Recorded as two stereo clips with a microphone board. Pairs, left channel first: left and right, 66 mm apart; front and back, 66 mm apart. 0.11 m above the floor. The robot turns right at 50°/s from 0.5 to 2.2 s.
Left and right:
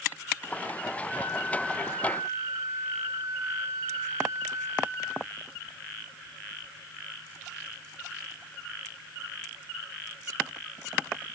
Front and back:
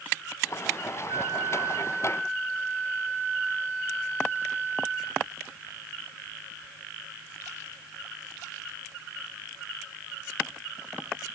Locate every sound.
1.1 s a flute: 170° right, 9 m; by 5.2 s 110° right, 9 m